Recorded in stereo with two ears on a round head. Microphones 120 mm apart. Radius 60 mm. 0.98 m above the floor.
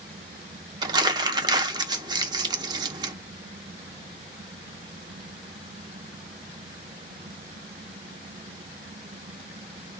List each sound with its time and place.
0.8 s crumpling: 30° right (ahead or behind), 0.8 m